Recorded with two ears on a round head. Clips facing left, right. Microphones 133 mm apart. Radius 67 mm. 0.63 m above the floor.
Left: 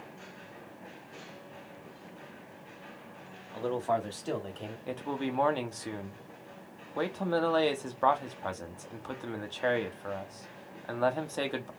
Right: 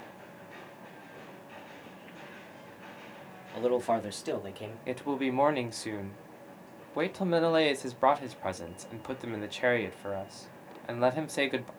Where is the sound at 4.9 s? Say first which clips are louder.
Right 3 dB; 15° right (ahead or behind), 0.5 m.